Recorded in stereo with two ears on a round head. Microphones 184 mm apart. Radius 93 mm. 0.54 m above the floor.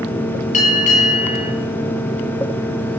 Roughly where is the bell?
Left.